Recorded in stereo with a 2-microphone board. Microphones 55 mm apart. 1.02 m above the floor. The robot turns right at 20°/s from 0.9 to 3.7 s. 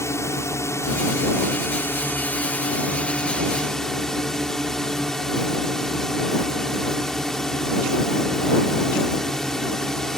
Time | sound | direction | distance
0.0 | a drone | 115° left | ?